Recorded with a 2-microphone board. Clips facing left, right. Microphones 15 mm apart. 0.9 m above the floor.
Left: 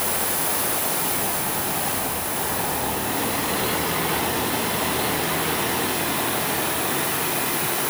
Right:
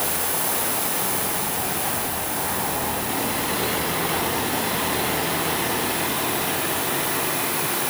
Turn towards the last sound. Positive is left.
No sound to turn to.